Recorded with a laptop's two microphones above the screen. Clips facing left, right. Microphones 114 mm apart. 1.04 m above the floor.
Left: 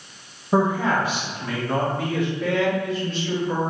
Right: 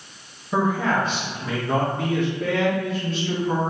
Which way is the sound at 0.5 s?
30° left (ahead or behind).